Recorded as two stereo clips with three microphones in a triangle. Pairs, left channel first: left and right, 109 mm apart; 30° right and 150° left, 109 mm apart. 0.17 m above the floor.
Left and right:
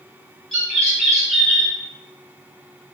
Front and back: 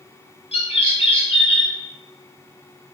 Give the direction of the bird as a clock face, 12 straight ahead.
12 o'clock.